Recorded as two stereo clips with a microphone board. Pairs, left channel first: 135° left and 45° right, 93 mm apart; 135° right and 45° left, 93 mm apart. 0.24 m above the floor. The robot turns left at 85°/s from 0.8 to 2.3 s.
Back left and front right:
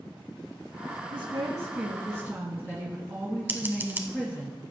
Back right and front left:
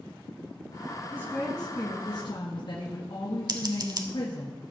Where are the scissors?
20° left, 1.0 m.